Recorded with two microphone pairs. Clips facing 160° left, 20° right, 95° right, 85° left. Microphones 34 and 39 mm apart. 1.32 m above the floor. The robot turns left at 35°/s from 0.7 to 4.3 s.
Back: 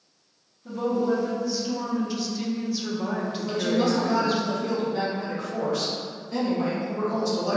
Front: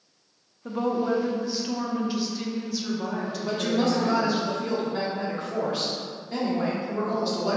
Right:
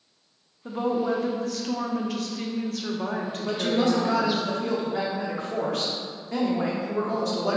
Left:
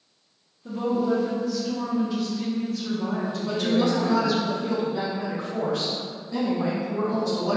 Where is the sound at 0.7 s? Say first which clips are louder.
Back 1 dB, left 1 dB; 40° right, 0.5 m; by 4.4 s 165° right, 0.5 m.